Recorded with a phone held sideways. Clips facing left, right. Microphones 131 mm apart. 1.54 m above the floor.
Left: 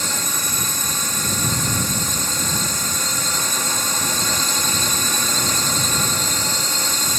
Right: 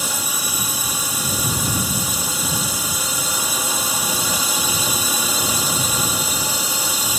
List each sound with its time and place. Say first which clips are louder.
0.0 s a drone: even; 10° right (ahead or behind)